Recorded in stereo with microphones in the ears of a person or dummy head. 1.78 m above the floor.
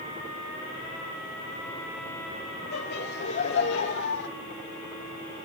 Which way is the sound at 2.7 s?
65° left (ahead or behind).